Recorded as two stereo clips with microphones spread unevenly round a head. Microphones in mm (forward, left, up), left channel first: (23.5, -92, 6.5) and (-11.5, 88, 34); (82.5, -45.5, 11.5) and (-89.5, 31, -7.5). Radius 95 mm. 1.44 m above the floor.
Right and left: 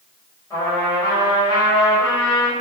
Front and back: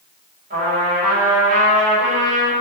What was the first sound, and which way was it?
A trumpet, 155° right.